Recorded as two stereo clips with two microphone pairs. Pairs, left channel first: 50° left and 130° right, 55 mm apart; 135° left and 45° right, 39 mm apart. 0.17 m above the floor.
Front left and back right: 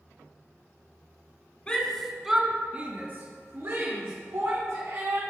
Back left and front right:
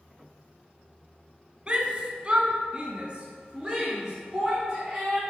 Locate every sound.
1.7 s a shout: 5° right, 1.2 m; by 5.2 s 115° right, 3 m